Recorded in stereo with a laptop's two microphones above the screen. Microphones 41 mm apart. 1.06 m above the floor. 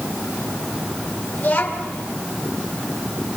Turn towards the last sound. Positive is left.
turn(degrees=35)  # may be behind; listen again after turning